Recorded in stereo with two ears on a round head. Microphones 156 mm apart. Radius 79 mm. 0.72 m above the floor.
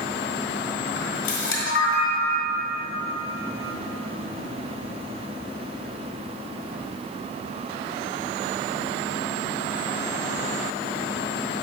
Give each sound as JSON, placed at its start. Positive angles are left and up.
{"t": 1.0, "sound": "a camera shutter", "side_deg": 70, "distance_m": 2.0}